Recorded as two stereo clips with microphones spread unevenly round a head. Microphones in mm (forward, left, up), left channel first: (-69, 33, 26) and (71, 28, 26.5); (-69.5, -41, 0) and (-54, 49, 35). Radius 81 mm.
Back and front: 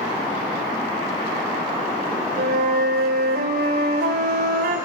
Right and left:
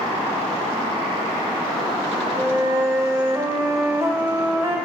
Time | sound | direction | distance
2.4 | a flute | 15° left | 1.4 m